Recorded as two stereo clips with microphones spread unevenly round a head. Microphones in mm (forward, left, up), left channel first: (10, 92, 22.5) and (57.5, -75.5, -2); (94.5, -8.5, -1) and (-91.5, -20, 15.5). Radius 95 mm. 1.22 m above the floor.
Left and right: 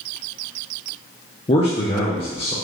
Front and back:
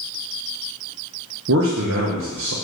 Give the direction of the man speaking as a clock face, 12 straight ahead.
6 o'clock.